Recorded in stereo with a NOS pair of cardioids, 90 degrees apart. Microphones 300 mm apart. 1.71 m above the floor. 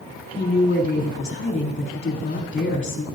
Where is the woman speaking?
35° left, 5 m.